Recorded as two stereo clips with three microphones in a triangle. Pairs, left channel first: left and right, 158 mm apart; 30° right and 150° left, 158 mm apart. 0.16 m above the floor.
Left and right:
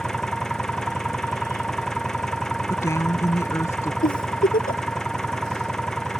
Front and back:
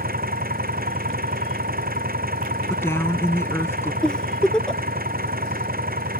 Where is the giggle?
55° left.